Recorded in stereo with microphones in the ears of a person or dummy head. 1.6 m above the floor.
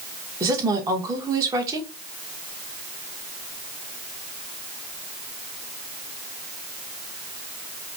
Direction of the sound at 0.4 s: 20° right (ahead or behind).